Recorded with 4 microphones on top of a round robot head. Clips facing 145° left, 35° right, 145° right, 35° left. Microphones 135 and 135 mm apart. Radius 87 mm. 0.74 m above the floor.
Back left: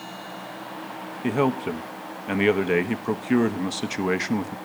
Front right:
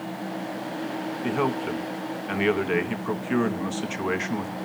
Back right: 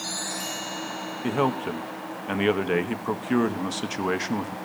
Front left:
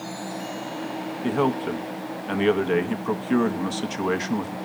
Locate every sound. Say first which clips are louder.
1.2 s a man speaking: back left 4 dB, front left 2 dB; 130° left, 1.1 m